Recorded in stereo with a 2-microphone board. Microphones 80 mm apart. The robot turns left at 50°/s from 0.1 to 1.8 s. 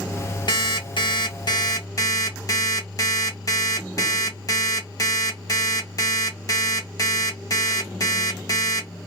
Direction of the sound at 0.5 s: 110° left.